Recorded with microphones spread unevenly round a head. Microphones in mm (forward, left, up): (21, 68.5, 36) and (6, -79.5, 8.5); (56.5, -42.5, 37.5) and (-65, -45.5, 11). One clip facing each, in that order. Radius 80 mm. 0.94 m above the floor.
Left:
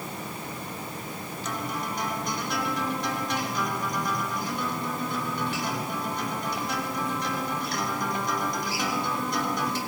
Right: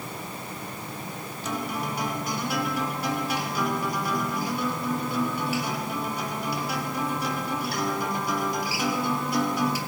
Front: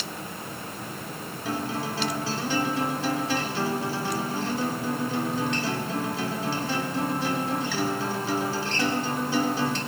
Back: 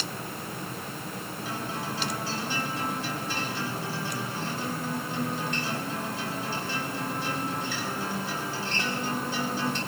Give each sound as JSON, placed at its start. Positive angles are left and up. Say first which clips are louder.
{"t": 1.4, "sound": "a guitar", "louder": "right 3 dB, front 6 dB", "azimuth_deg": -15, "distance_m": 3.5}